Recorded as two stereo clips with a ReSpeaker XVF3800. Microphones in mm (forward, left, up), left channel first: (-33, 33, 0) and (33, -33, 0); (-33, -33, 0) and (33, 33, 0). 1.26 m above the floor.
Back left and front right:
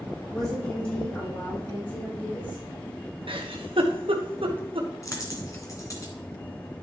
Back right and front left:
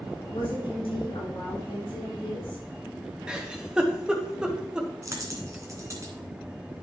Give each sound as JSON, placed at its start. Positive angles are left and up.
{"t": 0.3, "sound": "a woman speaking", "azimuth_deg": -150, "distance_m": 4.5}
{"t": 3.3, "sound": "a giggle", "azimuth_deg": -35, "distance_m": 1.2}
{"t": 5.0, "sound": "a dropped coin", "azimuth_deg": 90, "distance_m": 1.8}